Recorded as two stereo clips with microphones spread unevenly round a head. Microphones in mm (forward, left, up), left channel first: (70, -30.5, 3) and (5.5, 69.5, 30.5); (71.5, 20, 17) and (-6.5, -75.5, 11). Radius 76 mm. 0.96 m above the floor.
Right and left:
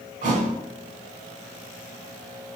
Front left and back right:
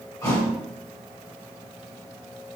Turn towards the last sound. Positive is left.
turn(degrees=120)